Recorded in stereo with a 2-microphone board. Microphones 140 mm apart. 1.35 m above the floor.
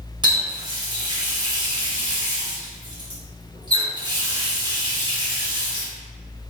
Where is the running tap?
30° right (ahead or behind), 1.0 m.